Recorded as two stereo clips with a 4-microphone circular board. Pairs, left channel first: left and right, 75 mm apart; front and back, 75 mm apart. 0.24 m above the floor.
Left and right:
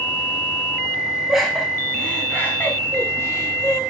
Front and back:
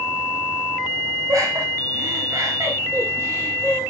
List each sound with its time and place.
1.3 s laughter: 175° right, 1.7 m; by 3.8 s 125° left, 2.5 m